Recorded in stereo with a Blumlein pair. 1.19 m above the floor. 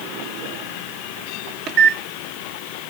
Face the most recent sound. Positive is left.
turn(degrees=-35)